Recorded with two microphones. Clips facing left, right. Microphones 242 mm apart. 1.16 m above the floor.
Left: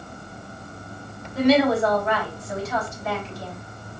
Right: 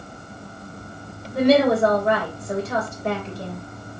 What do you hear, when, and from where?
1.3 s a woman speaking: 55° right (ahead or behind), 3 m